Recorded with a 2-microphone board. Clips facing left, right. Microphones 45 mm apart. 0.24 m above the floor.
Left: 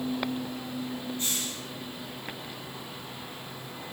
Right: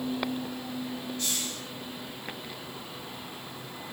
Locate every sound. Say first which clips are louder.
1.2 s a hiss: even; 25° left (ahead or behind), 4 m